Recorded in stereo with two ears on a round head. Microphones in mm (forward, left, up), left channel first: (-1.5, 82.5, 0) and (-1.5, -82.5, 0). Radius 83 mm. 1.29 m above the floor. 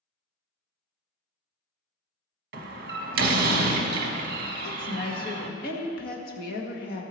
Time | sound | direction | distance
2.5 | a door slam | 50° right (ahead or behind) | 1.0 m
4.6 | a woman speaking | 50° left (ahead or behind) | 1.8 m